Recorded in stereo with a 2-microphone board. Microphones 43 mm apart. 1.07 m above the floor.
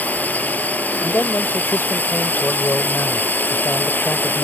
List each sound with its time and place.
0.0 s a drone: 40° left (ahead or behind); by 4.5 s 50° left (ahead or behind)
1.0 s a man speaking: 60° left (ahead or behind)